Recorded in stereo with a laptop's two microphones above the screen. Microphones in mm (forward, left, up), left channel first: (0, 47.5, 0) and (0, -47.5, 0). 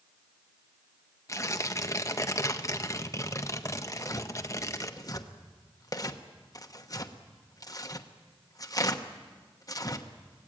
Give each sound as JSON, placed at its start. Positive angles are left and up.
{"t": 1.3, "sound": "tearing paper", "side_deg": 35, "distance_m": 1.2}
{"t": 3.9, "sound": "tearing paper", "side_deg": 40, "distance_m": 1.0}